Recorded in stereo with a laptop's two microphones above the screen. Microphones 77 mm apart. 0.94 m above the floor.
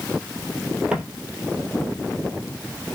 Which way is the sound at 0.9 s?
10° right (ahead or behind).